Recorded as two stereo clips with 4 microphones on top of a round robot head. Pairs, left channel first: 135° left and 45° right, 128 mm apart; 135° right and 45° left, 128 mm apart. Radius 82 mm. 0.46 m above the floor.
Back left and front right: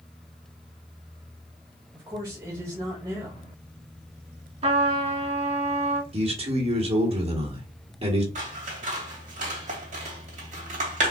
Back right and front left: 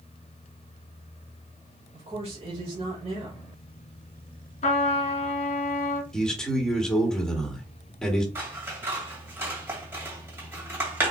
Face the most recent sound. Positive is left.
turn(degrees=-25)